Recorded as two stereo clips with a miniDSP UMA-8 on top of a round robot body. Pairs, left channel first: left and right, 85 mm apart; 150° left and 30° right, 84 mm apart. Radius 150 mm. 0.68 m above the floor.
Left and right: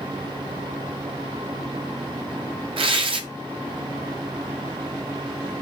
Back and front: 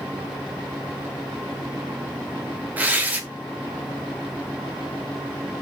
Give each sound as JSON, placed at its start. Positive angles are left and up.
{"t": 2.8, "sound": "tearing paper", "azimuth_deg": -100, "distance_m": 1.1}